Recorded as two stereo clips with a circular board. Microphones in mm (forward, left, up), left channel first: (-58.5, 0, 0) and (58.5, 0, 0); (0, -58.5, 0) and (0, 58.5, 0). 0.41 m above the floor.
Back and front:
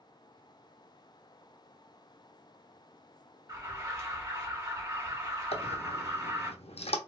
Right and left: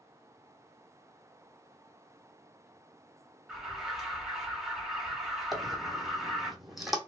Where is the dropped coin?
Straight behind, 0.8 m.